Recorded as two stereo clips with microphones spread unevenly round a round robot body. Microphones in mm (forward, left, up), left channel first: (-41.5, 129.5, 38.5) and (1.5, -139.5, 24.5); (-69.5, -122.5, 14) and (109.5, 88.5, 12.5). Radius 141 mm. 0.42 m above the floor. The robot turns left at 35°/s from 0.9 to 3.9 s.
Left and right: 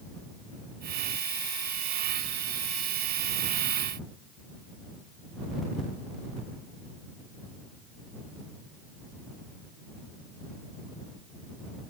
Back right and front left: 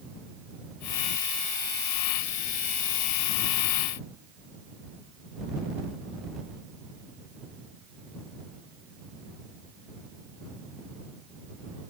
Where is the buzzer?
No buzzer in this recording.